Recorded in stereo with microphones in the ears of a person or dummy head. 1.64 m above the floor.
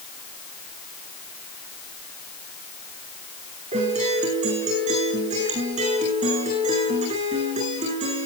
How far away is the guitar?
About 10 m.